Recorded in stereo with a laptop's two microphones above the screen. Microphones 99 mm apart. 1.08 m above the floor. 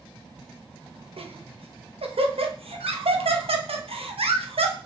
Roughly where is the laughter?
Right.